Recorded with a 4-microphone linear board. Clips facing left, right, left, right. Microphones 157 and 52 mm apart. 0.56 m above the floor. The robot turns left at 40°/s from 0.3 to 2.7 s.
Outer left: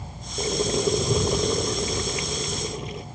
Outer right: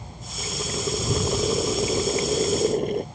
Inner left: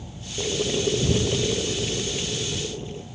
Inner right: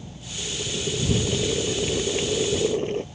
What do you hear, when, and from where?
0.4 s boiling: 40° left; by 3.0 s 55° right